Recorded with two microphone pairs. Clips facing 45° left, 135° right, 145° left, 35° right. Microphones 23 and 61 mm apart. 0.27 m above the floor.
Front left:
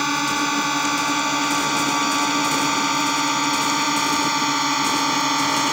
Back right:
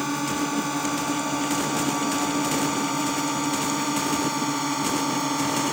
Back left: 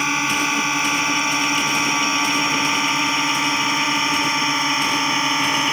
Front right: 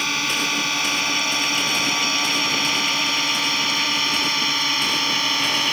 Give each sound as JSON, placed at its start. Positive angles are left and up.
{"t": 0.0, "sound": "a drone", "azimuth_deg": 80}